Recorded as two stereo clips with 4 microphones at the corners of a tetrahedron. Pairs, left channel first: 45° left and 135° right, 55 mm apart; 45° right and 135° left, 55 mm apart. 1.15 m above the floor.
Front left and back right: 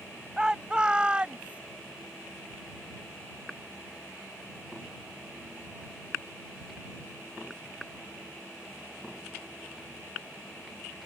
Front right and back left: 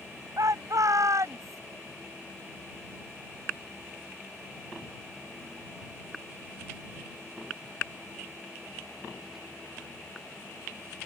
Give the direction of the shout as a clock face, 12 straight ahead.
7 o'clock.